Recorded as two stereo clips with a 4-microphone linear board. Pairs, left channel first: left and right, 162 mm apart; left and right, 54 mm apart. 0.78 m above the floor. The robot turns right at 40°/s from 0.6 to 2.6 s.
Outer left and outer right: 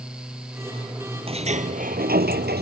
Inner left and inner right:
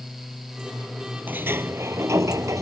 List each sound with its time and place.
1.3 s a sliding door: 145° right; by 2.6 s 90° right